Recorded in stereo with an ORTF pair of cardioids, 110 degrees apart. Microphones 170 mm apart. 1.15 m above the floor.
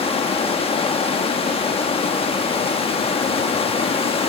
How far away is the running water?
About 1.2 m.